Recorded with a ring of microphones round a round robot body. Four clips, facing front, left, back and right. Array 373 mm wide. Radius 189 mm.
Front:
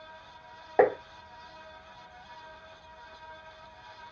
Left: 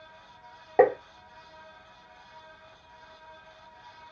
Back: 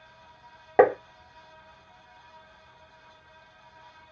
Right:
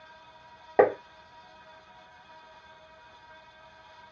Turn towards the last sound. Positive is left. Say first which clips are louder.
# left 1 dB, back 4 dB
turn(degrees=-160)